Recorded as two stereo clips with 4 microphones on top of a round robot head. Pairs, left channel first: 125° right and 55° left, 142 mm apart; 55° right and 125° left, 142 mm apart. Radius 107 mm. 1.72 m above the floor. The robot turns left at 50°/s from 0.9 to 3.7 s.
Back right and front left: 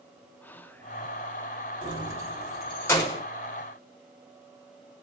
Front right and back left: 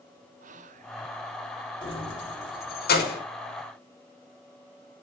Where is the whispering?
160° left, 0.9 m; by 0.9 s 155° left, 0.9 m.